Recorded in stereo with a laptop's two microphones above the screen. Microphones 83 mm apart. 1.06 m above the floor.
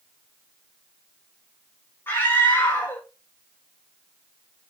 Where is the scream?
25° left (ahead or behind), 1.8 m.